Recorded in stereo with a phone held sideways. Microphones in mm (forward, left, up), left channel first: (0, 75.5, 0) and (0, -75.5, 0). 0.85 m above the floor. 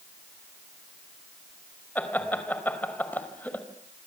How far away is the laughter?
About 4 m.